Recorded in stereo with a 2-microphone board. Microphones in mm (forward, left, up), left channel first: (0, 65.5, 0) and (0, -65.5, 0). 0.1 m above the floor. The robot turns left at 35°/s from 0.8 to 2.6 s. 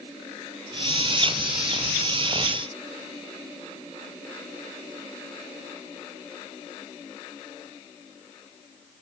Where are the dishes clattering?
I don't hear dishes clattering.